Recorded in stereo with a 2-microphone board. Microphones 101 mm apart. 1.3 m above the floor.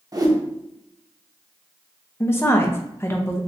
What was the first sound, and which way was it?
A whoosh, 35° right (ahead or behind).